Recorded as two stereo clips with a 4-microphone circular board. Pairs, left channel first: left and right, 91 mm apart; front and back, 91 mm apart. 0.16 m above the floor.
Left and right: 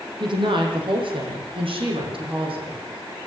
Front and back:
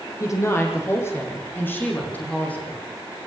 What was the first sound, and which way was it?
A woman speaking, 60° right.